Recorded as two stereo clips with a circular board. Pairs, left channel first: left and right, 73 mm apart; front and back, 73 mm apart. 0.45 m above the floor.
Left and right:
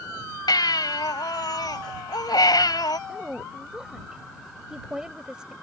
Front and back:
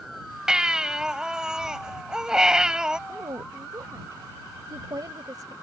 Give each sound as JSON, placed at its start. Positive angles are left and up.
{"t": 0.5, "sound": "a baby crying", "azimuth_deg": 100}
{"t": 3.1, "sound": "a woman speaking", "azimuth_deg": -170}